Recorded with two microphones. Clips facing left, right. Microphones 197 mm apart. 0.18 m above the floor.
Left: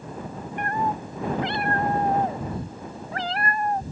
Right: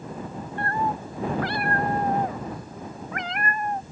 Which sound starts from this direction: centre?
A cat meowing, at 0.6 s.